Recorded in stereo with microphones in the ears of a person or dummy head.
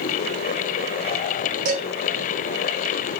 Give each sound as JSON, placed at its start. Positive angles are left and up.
{"t": 1.6, "sound": "dishes clattering", "side_deg": -55, "distance_m": 1.4}